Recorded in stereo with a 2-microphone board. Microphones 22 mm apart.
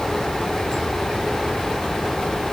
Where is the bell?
I don't hear a bell.